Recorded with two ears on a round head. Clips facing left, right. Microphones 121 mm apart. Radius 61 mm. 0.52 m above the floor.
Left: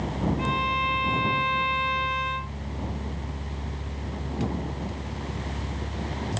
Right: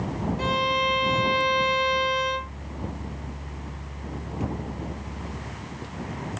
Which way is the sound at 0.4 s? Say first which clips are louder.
Right 2 dB; 55° right (ahead or behind).